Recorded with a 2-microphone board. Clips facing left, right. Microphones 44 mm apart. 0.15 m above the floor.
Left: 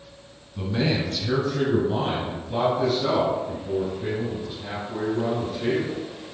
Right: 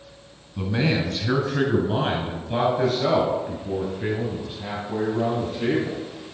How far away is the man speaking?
About 1.3 m.